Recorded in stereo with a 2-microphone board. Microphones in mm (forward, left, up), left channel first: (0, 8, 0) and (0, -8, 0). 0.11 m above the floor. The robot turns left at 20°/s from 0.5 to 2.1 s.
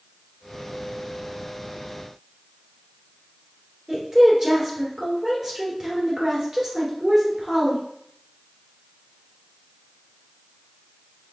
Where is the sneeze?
No sneeze in this recording.